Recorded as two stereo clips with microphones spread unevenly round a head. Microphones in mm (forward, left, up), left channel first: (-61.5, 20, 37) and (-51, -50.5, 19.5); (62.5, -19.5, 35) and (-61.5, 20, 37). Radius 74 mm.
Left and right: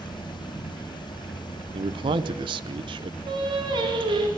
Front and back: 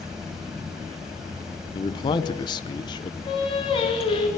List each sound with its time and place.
0.0 s running water: 80° left, 3.5 m
1.7 s a man speaking: 75° right, 1.1 m
3.3 s singing: 70° right, 4.5 m